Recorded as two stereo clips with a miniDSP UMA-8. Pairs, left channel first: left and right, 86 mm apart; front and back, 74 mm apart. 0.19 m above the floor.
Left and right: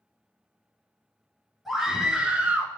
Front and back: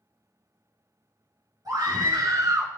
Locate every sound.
1.6 s a scream: 175° right, 2.5 m; by 2.7 s 155° right, 1.7 m